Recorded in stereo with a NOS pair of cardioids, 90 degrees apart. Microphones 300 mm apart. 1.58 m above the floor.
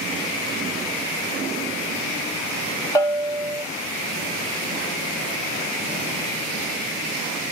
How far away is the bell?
About 2.5 m.